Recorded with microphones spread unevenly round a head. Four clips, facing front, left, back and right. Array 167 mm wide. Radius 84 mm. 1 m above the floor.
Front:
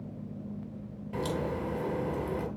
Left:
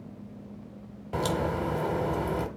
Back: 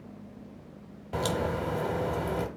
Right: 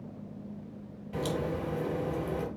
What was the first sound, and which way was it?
A crack, 120° left.